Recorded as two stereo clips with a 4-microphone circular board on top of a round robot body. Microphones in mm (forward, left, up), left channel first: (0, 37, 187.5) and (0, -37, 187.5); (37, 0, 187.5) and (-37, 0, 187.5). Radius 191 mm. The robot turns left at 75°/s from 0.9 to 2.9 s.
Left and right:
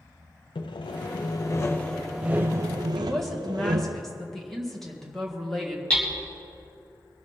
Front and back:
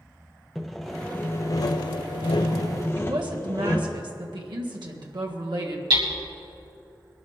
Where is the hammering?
165° left, 3 m.